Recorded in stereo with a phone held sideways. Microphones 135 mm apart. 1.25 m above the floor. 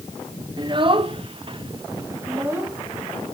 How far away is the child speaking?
About 0.9 m.